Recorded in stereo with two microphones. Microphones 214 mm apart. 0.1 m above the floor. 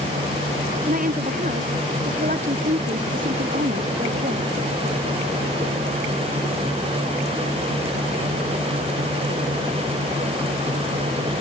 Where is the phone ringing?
No phone ringing in this recording.